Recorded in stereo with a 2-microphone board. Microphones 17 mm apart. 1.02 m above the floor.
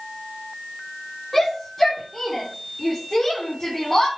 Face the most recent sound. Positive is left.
turn(degrees=30)  # may be behind; listen again after turning